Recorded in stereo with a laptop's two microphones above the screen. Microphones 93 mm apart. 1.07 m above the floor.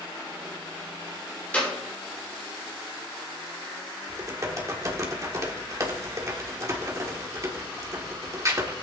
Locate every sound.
1.5 s a clap: 15° left (ahead or behind), 3.5 m
4.1 s typing on a keyboard: 35° right (ahead or behind), 1.3 m